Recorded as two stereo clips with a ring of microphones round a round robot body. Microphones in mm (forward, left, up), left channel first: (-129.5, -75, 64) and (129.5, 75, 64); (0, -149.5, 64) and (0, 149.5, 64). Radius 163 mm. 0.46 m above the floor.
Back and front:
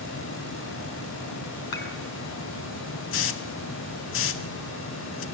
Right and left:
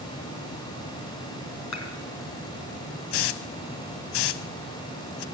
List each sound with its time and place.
1.7 s dishes clattering: 130° right, 4 m
3.1 s a hiss: 100° right, 0.6 m